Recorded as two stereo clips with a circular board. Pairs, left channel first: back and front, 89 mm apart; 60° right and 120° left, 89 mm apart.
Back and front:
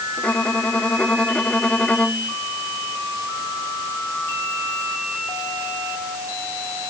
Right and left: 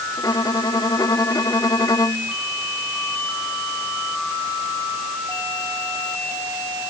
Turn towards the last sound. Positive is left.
turn(degrees=-105)